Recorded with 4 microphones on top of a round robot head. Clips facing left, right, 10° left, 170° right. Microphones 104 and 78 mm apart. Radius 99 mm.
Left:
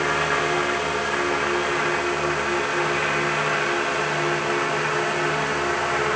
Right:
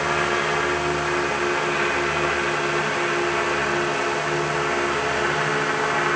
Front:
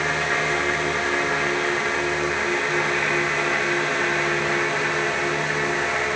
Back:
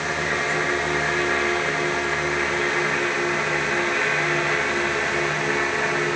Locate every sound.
Only background noise.